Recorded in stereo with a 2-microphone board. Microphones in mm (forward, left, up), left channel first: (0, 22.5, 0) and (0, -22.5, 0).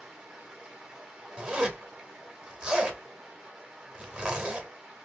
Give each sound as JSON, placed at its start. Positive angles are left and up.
{"t": 0.0, "sound": "running water", "side_deg": -15, "distance_m": 1.0}
{"t": 1.4, "sound": "a zipper", "side_deg": -20, "distance_m": 0.9}